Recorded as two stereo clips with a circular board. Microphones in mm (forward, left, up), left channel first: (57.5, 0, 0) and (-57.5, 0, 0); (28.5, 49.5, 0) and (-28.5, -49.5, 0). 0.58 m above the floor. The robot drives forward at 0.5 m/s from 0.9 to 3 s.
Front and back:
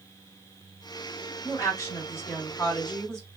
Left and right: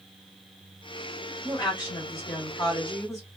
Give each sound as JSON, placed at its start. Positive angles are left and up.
{"t": 1.4, "sound": "a woman speaking", "azimuth_deg": 35, "distance_m": 1.6}